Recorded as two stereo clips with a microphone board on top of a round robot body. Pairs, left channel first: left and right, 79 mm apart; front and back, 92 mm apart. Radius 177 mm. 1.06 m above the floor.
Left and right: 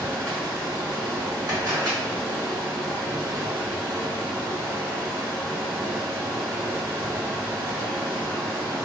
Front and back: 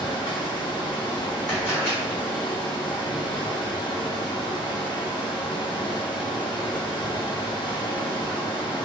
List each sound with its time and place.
0.0 s running water: 30° right, 1.7 m
1.5 s a camera shutter: 60° right, 1.7 m